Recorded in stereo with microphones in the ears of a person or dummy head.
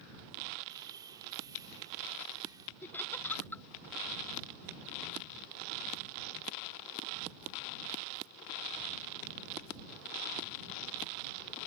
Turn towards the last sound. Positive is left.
turn(degrees=10)  # may be behind; listen again after turning